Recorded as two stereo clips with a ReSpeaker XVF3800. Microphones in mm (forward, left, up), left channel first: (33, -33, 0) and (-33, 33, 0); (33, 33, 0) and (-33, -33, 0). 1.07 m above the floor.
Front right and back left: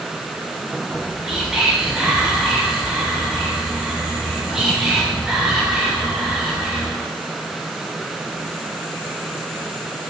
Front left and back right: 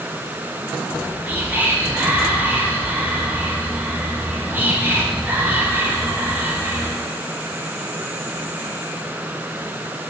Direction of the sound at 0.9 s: 150° right.